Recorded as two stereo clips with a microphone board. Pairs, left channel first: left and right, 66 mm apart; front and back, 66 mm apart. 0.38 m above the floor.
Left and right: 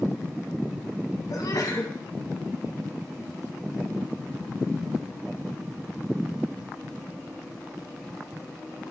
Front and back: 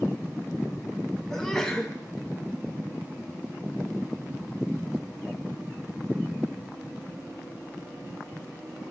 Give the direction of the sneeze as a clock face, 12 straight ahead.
9 o'clock.